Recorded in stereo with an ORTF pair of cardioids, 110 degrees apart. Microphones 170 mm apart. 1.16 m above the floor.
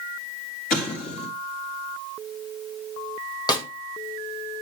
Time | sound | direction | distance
0.7 | an explosion | 65° left | 3 m
3.5 | a snare drum | 25° left | 1.4 m